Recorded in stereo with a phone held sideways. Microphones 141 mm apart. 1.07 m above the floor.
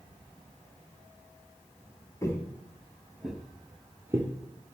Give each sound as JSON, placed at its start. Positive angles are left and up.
{"t": 2.2, "sound": "footsteps", "side_deg": 20, "distance_m": 1.2}